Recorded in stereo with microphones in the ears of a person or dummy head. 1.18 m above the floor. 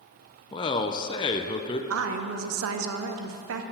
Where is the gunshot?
No gunshot in this recording.